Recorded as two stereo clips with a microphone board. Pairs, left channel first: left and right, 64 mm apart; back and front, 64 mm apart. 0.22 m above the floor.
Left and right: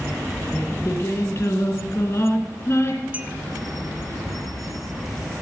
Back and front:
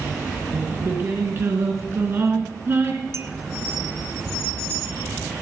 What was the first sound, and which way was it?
Singing, 50° left.